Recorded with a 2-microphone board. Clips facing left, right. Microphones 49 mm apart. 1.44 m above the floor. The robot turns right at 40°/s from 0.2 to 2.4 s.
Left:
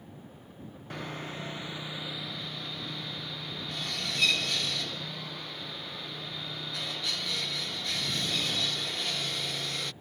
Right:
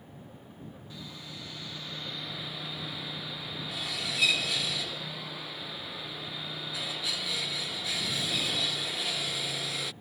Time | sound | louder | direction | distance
0.9 | sawing | left 10 dB | 120° left | ?